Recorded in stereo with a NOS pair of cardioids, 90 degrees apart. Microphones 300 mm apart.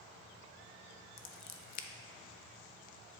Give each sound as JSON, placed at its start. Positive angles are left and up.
{"t": 1.2, "sound": "scissors", "azimuth_deg": 60, "distance_m": 0.7}